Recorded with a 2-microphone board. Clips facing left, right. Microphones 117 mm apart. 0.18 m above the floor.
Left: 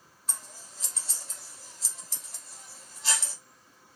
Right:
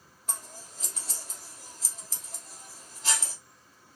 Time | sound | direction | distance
0.3 | scissors | 50° right (ahead or behind) | 1.2 m